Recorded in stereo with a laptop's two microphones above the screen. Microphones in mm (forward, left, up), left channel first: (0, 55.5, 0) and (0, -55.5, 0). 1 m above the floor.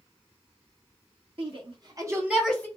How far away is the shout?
About 1.7 m.